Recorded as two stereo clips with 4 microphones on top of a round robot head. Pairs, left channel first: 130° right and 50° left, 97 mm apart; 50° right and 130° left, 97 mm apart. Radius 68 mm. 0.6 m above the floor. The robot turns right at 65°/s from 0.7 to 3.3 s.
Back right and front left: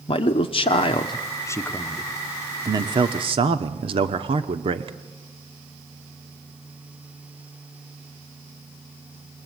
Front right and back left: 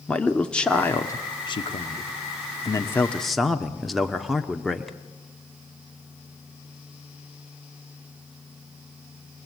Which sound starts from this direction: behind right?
A man speaking, at 0.1 s.